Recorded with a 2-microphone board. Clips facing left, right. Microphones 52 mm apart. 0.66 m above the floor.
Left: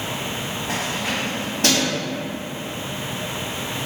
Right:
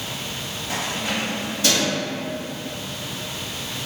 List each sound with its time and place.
0.7 s keys jangling: 55° left (ahead or behind), 1.1 m